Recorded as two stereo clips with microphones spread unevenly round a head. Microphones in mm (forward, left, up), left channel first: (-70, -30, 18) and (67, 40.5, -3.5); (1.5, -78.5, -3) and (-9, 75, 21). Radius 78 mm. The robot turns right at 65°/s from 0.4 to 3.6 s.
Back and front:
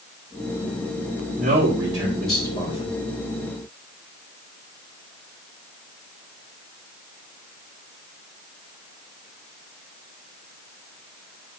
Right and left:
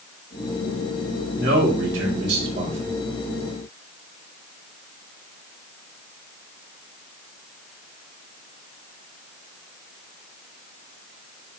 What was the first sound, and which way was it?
A man speaking, 60° left.